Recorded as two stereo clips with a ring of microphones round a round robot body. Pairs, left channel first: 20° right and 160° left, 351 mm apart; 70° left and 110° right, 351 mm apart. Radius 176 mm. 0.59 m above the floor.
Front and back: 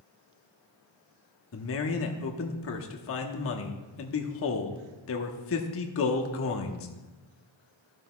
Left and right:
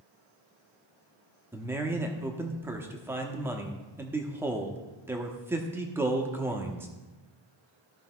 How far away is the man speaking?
About 1.0 m.